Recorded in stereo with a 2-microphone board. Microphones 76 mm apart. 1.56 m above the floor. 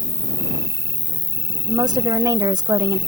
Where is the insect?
55° right (ahead or behind).